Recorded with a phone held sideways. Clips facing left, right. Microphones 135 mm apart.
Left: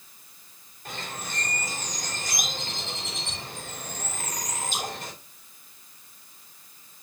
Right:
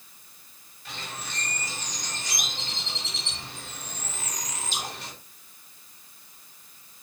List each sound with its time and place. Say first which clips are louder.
0.8 s a bird: left 2 dB; 45° left (ahead or behind), 3 m